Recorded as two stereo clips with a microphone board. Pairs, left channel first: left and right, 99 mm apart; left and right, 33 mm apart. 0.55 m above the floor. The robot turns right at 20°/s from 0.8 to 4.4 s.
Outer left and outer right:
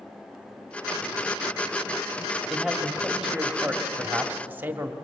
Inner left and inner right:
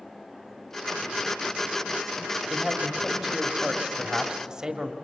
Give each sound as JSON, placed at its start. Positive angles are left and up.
{"t": 2.5, "sound": "a man speaking", "azimuth_deg": 175, "distance_m": 1.5}